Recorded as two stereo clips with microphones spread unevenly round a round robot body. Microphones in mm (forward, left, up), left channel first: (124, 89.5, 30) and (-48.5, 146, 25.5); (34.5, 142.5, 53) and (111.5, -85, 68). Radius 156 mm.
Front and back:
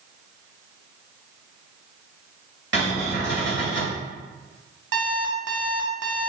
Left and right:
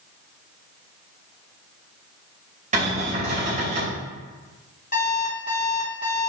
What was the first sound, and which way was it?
A cupboard door, 140° right.